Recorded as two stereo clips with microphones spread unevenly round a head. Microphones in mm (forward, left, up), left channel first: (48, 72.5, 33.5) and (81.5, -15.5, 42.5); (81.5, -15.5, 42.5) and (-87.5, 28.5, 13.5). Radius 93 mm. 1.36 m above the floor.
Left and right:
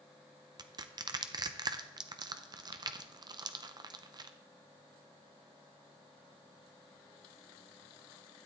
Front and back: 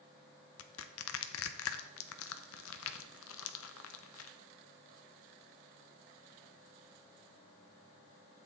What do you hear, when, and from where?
0.6 s crushing: 25° right, 0.7 m